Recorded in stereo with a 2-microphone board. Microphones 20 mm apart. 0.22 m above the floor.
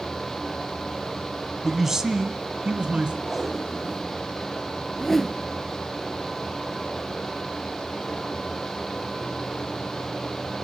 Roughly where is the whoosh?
Centre.